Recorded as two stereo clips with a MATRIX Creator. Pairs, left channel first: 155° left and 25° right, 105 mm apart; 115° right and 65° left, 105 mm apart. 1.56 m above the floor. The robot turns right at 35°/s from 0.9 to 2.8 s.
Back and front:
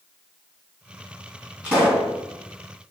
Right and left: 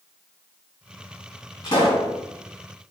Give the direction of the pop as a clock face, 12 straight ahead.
3 o'clock.